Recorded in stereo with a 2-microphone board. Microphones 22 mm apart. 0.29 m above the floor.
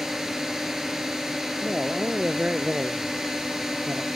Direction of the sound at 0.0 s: 20° right (ahead or behind).